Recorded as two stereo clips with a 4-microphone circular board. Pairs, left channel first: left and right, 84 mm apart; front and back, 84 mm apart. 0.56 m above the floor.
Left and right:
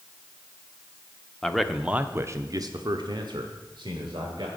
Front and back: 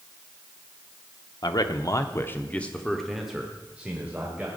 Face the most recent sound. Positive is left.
turn(degrees=-110)